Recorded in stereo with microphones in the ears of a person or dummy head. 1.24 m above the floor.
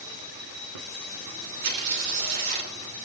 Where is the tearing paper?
75° right (ahead or behind), 2.5 m.